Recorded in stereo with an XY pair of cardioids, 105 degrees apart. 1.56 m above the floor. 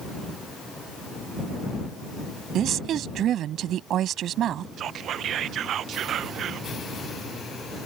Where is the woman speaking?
70° right.